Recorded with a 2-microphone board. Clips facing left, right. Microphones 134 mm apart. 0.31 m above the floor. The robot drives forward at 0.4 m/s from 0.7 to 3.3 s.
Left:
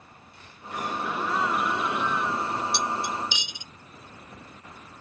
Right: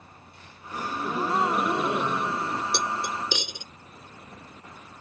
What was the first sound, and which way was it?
A gasp, 30° right (ahead or behind).